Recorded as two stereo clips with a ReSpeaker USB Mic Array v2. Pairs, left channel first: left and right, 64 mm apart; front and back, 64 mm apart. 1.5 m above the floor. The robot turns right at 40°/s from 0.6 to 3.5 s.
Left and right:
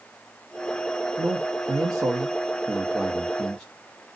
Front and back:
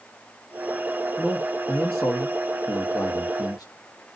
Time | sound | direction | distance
1.2 | a man speaking | 85° right | 0.9 m